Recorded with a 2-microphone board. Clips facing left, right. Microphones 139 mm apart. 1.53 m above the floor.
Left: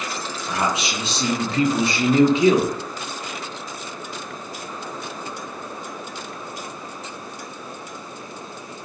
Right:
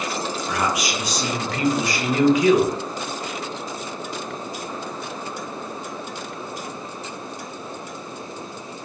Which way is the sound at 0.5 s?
25° left (ahead or behind).